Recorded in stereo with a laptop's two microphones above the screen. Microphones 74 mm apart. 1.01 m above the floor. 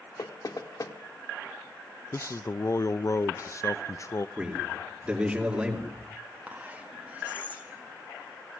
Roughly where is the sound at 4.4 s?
Centre.